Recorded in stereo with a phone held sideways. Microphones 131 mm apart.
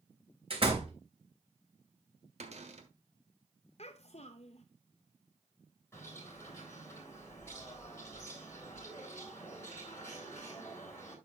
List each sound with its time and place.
0.5 s a door slam: 50° right (ahead or behind), 3 m
2.4 s a cupboard door: 60° right (ahead or behind), 1.5 m
3.8 s a child speaking: 60° left (ahead or behind), 0.6 m
5.9 s a bird: 20° left (ahead or behind), 7 m